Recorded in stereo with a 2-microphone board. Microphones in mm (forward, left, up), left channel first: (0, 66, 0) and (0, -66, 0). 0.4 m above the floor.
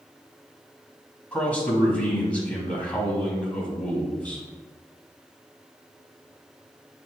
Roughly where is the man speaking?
Centre.